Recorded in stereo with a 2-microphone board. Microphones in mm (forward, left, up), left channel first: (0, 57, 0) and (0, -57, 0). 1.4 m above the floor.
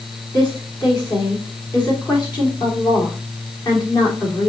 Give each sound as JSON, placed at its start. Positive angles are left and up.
{"t": 0.3, "sound": "a woman speaking", "side_deg": 40, "distance_m": 3.5}